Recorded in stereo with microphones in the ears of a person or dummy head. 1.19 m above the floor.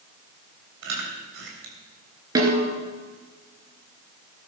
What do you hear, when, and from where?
0.8 s chewing: 70° right (ahead or behind), 3 m
2.4 s a snare drum: 20° right (ahead or behind), 3 m